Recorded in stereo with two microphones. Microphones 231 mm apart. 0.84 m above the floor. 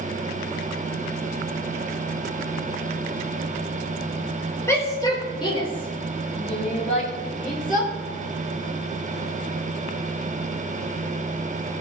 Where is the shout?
10° left (ahead or behind), 3 m; by 7.9 s 35° left (ahead or behind), 5 m.